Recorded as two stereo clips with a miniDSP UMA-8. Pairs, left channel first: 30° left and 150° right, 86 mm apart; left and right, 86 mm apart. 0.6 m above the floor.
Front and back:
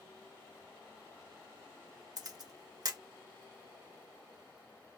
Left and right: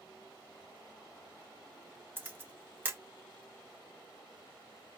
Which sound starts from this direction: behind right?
A camera shutter, at 2.2 s.